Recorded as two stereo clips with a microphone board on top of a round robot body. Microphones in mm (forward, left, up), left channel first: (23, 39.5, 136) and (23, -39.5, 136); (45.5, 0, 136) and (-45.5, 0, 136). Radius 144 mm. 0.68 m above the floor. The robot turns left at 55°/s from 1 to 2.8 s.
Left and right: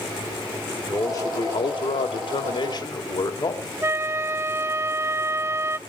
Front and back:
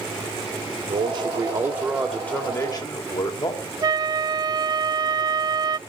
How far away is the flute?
About 0.5 m.